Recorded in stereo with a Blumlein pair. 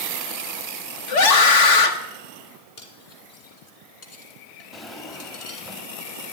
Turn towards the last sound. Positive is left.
turn(degrees=5)